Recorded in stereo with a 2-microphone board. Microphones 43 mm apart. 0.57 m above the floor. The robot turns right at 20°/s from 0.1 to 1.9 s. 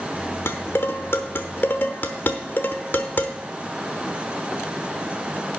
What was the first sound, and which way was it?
Dishes clattering, 65° left (ahead or behind).